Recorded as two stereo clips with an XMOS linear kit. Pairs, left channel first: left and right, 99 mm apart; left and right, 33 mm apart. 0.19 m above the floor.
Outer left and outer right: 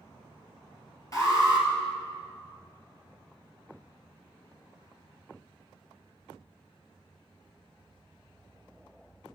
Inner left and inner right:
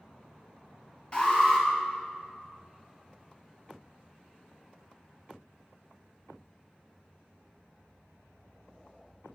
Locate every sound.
1.1 s an alarm: 35° left (ahead or behind), 2 m